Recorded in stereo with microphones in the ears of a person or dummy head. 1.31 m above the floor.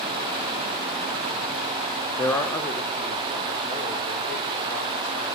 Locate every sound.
2.2 s a man speaking: 20° left (ahead or behind), 0.6 m; by 5.3 s 10° left (ahead or behind), 2 m